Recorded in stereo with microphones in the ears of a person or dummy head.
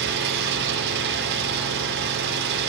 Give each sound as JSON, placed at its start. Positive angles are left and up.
{"t": 0.0, "sound": "an engine running", "side_deg": -60, "distance_m": 6.0}